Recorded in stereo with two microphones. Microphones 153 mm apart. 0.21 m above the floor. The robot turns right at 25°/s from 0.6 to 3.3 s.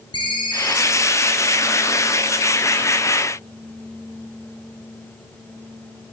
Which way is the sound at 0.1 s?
30° left (ahead or behind).